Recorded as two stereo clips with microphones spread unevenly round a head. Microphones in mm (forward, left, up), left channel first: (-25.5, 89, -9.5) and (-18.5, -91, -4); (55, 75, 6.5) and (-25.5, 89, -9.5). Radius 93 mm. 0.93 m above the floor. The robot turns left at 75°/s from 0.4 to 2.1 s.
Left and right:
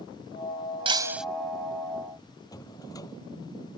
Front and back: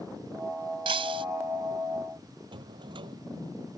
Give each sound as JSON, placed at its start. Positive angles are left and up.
{"t": 0.8, "sound": "breaking glass", "azimuth_deg": -145}
{"t": 2.5, "sound": "a drawer", "azimuth_deg": 160}